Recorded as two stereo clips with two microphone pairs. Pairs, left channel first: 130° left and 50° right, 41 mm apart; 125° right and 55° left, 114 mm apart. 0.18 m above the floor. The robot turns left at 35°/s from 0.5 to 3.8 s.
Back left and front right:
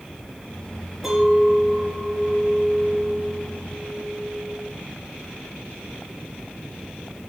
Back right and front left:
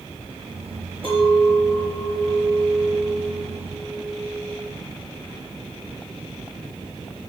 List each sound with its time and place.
1.0 s a clink: 35° left, 2 m; by 4.7 s 65° right, 2 m